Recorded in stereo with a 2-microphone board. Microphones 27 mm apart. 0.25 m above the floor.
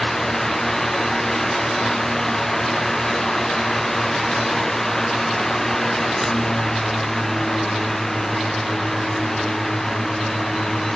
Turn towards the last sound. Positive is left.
No sound to turn to.